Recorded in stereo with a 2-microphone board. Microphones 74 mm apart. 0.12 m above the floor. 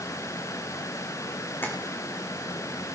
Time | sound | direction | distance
1.6 | tapping | 30° left (ahead or behind) | 3 m